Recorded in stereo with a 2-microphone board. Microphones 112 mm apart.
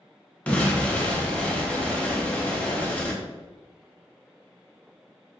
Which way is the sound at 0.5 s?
10° left (ahead or behind).